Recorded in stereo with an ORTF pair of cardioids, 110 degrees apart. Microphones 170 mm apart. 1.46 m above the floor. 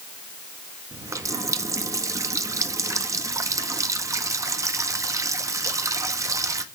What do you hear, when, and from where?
0.9 s a running tap: 20° right, 1.5 m